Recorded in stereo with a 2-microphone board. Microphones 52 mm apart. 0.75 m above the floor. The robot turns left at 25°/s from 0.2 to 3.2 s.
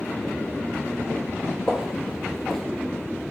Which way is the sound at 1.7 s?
15° right (ahead or behind).